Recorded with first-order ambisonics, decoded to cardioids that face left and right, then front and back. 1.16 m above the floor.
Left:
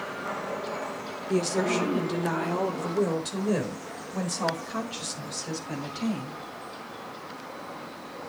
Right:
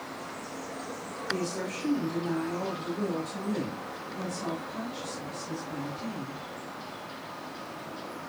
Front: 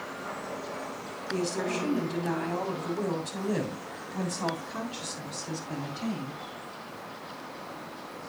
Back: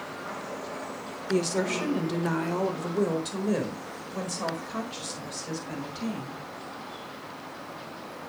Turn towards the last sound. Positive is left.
turn(degrees=115)